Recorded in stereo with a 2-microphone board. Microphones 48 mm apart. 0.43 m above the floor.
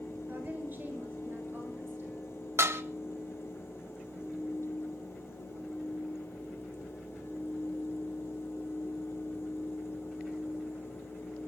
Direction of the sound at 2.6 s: 65° right (ahead or behind).